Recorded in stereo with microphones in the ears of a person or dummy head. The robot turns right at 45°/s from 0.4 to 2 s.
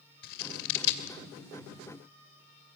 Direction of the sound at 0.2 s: 50° left (ahead or behind).